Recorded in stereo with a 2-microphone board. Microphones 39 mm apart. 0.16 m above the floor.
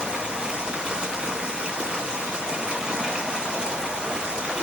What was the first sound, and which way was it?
Running water, 15° right (ahead or behind).